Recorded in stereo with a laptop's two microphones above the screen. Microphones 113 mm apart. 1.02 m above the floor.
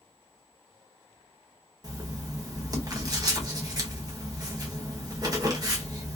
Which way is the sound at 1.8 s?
35° right (ahead or behind).